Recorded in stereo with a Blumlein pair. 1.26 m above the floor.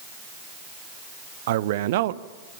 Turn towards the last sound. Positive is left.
turn(degrees=-55)